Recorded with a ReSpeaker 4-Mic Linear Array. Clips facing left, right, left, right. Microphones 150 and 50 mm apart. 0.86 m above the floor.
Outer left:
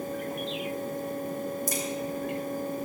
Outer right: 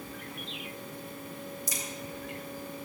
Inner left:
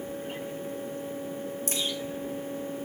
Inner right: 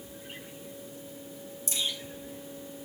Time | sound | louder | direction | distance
1.7 | a crack | outer left 8 dB, inner left 1 dB | 50° left (ahead or behind) | 1.9 m